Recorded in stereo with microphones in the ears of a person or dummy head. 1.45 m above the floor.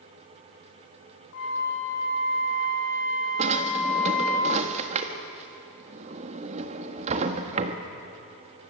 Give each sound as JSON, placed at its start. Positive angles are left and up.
{"t": 1.3, "sound": "a flute", "side_deg": 65, "distance_m": 2.5}
{"t": 3.4, "sound": "a drawer", "side_deg": -40, "distance_m": 1.4}